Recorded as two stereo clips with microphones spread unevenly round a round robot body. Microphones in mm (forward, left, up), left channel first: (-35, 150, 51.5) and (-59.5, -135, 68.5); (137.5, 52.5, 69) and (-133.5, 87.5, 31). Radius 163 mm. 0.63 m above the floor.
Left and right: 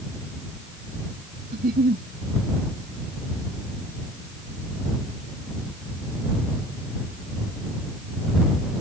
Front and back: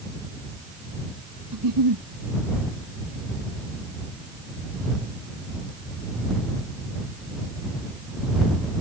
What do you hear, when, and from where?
1.5 s a giggle: 155° right